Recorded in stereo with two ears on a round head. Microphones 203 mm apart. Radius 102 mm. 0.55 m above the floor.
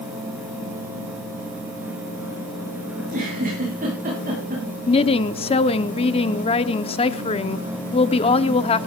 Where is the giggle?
40° right (ahead or behind), 8.5 m.